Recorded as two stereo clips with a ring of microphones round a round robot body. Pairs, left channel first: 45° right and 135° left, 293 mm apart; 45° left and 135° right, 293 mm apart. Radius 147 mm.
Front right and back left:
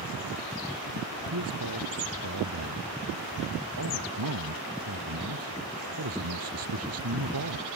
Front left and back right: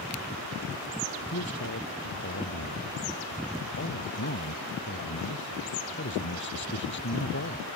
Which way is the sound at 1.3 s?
95° left.